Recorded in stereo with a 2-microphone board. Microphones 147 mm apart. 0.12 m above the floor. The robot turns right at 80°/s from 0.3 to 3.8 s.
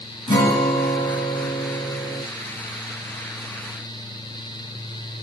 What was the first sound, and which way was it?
A guitar, 30° left.